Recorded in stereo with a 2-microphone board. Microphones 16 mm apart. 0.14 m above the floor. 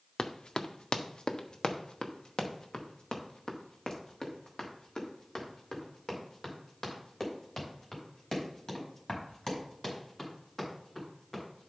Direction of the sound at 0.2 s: 70° left (ahead or behind).